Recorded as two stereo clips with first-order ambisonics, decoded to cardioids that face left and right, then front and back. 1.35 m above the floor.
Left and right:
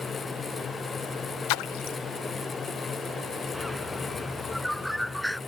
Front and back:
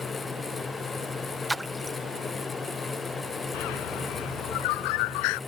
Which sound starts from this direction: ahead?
A bird, at 3.5 s.